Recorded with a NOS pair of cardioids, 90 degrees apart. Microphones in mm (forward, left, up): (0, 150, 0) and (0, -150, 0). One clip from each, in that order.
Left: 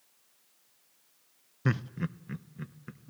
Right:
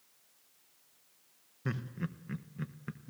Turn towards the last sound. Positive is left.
turn(degrees=-25)